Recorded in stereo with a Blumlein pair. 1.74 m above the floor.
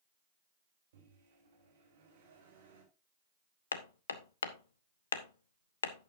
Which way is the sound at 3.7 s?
65° left.